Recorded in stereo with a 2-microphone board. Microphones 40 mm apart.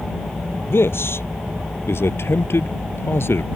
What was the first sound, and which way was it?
A man speaking, 80° left.